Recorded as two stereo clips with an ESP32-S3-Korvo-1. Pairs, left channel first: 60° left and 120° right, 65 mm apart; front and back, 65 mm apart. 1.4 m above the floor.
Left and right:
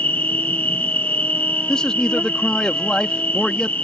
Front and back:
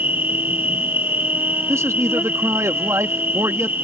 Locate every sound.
0.0 s an insect: 120° left
1.7 s a man speaking: 135° left